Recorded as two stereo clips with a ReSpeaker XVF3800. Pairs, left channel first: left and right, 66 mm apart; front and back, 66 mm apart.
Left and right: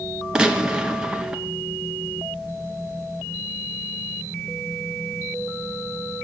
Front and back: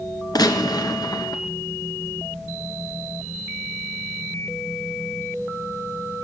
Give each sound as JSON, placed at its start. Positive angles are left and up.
{"t": 0.3, "sound": "a gunshot", "azimuth_deg": -15, "distance_m": 1.4}